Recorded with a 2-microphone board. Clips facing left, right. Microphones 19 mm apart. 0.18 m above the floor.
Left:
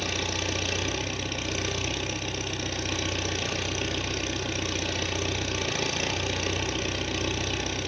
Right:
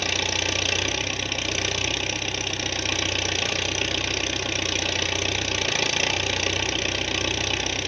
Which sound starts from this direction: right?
An engine running, at 0.0 s.